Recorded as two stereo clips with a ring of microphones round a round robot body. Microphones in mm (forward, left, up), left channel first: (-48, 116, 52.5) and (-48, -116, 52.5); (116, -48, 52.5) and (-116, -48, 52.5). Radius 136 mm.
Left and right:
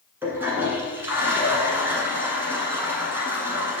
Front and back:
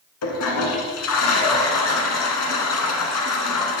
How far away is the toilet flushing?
About 1.1 m.